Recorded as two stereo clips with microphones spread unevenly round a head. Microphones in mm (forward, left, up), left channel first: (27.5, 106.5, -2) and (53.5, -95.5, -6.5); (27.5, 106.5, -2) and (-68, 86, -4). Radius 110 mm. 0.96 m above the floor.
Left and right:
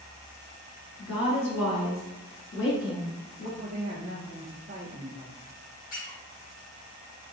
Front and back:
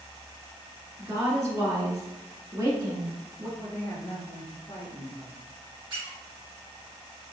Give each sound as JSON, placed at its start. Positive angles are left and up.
{"t": 1.0, "sound": "a woman speaking", "azimuth_deg": 140, "distance_m": 1.9}
{"t": 3.6, "sound": "a woman speaking", "azimuth_deg": -40, "distance_m": 0.6}
{"t": 5.9, "sound": "a squeak", "azimuth_deg": 155, "distance_m": 1.4}